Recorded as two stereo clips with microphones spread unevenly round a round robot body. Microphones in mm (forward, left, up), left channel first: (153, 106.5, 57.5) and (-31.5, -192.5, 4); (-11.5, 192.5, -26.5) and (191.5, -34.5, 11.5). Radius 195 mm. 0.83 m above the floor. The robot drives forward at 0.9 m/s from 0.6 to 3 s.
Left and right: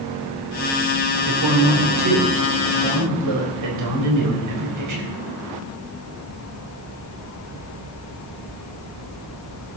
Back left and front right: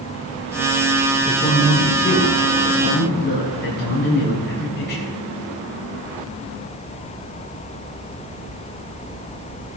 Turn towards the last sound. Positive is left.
turn(degrees=-165)